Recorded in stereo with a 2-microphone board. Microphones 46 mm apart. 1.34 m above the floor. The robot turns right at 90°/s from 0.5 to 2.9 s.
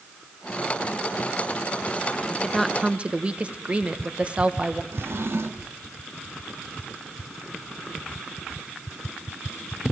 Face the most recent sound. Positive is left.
turn(degrees=-60)  # may be behind; listen again after turning